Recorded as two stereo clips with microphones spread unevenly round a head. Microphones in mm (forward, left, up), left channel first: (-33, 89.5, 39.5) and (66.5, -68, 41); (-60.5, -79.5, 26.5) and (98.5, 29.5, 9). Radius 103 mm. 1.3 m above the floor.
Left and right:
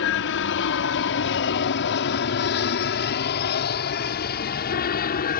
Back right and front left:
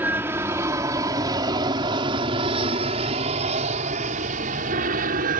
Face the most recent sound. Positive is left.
turn(degrees=85)